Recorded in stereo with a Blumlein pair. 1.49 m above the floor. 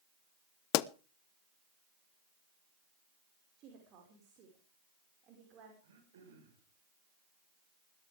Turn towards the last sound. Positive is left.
turn(degrees=-60)